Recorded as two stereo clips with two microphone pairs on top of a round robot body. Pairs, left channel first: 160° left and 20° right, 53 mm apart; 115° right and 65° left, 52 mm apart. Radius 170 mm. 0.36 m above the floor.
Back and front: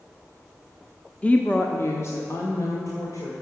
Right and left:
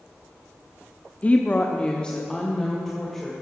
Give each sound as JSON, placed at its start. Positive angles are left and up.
{"t": 1.2, "sound": "a woman speaking", "azimuth_deg": -140, "distance_m": 1.4}